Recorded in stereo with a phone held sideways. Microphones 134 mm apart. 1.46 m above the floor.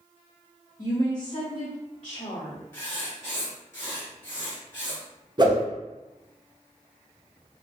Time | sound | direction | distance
0.8 | a woman speaking | 30° left (ahead or behind) | 1.3 m
2.7 | writing | 15° left (ahead or behind) | 1.6 m
5.4 | a whoosh | 35° right (ahead or behind) | 0.9 m